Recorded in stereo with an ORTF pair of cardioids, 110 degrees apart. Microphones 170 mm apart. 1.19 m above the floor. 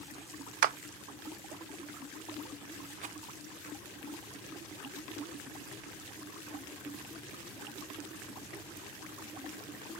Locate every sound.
0.6 s a clap: 60° right, 0.5 m
3.0 s a rattle: 45° right, 0.7 m